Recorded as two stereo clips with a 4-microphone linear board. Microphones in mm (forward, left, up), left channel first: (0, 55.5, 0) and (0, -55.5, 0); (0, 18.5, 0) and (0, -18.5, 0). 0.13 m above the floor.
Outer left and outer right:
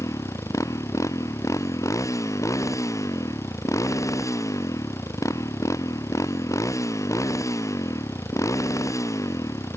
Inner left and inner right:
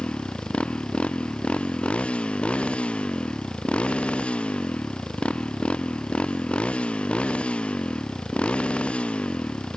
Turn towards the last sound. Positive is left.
turn(degrees=30)  # may be behind; listen again after turning